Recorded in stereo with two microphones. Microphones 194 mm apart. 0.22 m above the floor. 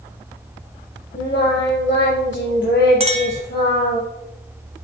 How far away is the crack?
No crack in this recording.